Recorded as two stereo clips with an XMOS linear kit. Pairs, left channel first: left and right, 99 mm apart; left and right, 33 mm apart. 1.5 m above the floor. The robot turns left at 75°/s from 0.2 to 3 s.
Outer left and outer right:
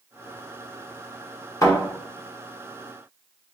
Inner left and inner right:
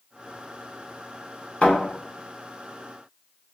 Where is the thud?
30° left (ahead or behind), 1.5 m; by 1.8 s 35° left (ahead or behind), 1.5 m.